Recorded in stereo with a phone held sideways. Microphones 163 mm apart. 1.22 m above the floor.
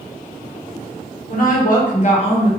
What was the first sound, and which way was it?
A woman speaking, 65° left (ahead or behind).